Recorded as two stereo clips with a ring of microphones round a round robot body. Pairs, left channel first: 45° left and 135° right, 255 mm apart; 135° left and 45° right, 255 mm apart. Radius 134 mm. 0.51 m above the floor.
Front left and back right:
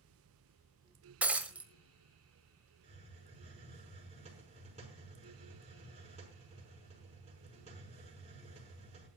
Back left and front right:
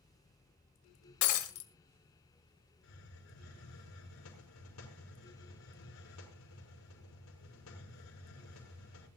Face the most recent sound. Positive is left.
turn(degrees=160)